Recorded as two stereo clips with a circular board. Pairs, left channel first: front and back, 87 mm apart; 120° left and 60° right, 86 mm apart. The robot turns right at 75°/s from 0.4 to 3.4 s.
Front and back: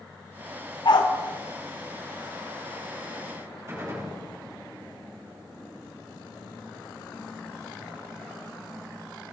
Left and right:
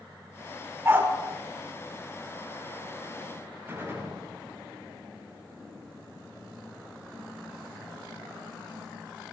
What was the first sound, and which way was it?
A dog barking, 5° right.